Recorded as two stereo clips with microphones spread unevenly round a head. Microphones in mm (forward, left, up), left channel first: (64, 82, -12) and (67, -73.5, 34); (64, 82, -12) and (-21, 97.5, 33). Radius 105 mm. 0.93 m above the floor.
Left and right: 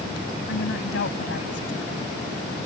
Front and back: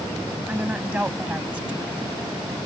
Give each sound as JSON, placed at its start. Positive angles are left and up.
{"t": 0.5, "sound": "a woman speaking", "azimuth_deg": 100}